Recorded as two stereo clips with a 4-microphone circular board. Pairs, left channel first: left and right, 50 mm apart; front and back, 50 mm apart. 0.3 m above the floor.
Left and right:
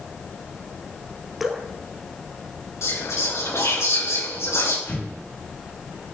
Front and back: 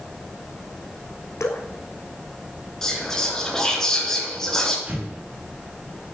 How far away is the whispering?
About 4.5 m.